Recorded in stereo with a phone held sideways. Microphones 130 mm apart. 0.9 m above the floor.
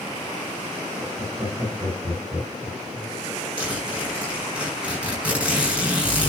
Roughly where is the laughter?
Right.